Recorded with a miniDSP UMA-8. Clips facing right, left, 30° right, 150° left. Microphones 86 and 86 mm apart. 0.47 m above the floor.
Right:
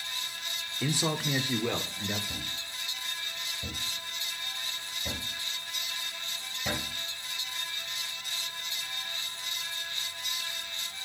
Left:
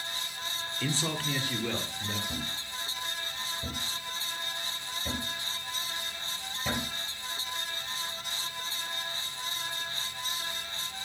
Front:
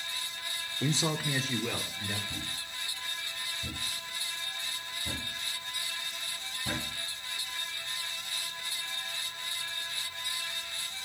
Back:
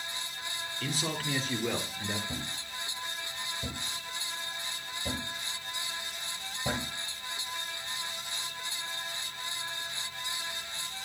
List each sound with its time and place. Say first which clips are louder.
0.8 s a man speaking: right 3 dB, front 4 dB; 25° right, 1.2 m; by 2.2 s 155° right, 1.7 m
2.3 s a thud: left 3 dB, back 2 dB; 175° left, 5.5 m